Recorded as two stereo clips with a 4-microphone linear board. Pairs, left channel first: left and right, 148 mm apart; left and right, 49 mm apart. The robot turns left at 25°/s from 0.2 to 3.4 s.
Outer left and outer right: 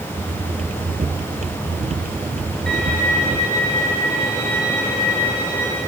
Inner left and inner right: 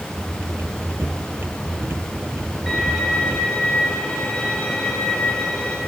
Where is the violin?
5° left (ahead or behind), 10 m; by 5.8 s 25° left (ahead or behind), 10 m.